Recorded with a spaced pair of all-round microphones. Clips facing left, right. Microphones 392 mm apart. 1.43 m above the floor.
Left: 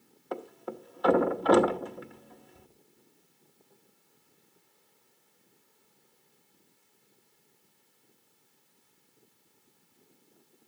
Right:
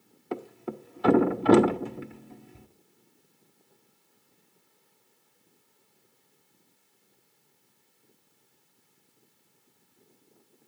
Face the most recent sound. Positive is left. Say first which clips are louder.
# right 3 dB
turn(degrees=-40)  # may be behind; listen again after turning